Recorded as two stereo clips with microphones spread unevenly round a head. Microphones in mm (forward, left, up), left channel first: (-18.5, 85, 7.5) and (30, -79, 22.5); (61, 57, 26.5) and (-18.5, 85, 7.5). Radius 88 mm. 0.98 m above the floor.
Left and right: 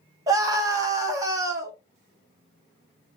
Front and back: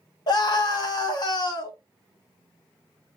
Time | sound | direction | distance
0.3 | a scream | 5° right | 0.8 m